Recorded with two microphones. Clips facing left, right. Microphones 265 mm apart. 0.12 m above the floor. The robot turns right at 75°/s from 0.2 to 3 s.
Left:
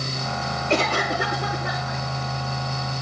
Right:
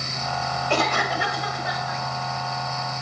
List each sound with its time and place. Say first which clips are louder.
0.7 s a cough: left 2 dB; 25° left, 3 m; by 2.0 s 125° left, 3 m